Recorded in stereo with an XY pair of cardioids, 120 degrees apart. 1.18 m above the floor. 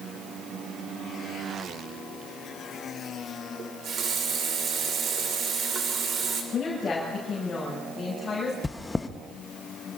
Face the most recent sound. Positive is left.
turn(degrees=20)